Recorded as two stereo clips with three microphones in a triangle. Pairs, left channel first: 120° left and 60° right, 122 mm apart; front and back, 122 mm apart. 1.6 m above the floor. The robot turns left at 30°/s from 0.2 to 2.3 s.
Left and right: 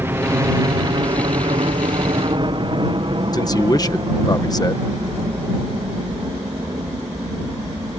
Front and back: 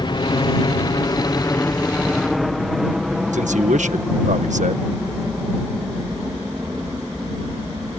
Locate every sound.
0.0 s a helicopter: straight ahead; by 8.0 s 110° right
3.3 s a man speaking: 175° left